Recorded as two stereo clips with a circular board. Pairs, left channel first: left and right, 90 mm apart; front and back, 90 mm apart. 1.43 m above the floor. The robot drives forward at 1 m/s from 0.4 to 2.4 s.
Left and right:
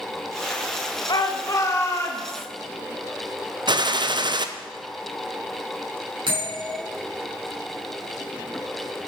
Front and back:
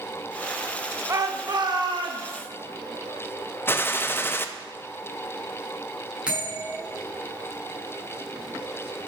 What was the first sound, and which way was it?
A shout, 125° left.